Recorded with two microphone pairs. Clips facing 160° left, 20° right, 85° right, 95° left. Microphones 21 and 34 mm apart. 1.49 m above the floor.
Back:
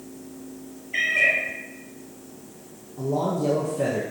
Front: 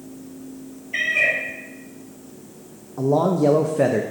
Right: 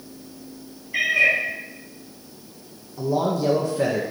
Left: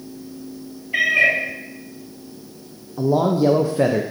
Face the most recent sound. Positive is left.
turn(degrees=25)